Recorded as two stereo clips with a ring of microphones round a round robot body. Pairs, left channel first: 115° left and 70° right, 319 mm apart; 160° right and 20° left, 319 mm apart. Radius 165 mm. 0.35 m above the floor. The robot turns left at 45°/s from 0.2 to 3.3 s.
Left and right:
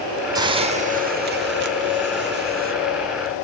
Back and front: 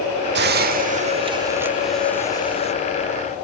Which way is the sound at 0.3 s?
Straight ahead.